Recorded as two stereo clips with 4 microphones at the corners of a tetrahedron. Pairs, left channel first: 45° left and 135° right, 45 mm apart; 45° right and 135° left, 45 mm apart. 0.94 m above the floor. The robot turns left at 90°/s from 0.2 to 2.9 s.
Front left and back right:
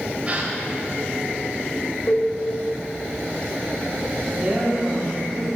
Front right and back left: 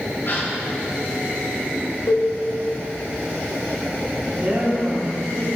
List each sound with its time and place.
0.2 s a gasp: 75° right, 2 m; by 0.5 s 100° right, 2 m
2.1 s a cowbell: 10° right, 1.5 m; by 2.3 s 30° right, 1.5 m
4.3 s a woman speaking: straight behind, 2.5 m